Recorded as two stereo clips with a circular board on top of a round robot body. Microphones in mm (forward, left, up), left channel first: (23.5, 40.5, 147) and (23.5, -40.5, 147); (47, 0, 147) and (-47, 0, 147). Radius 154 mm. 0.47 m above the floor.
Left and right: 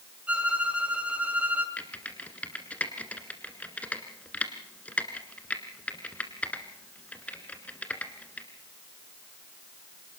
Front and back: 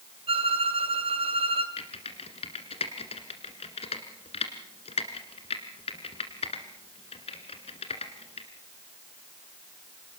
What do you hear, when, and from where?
0.3 s a violin: 165° right, 2.5 m
1.8 s typing on a keyboard: 15° left, 1.7 m